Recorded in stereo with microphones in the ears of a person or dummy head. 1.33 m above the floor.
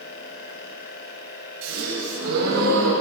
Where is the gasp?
65° right (ahead or behind), 9.5 m.